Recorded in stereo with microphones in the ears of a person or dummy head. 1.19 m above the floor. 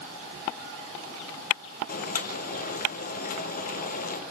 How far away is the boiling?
About 2.5 m.